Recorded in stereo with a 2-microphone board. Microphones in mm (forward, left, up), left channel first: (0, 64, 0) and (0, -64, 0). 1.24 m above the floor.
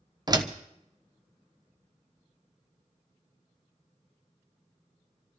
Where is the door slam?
30° right (ahead or behind), 0.9 m.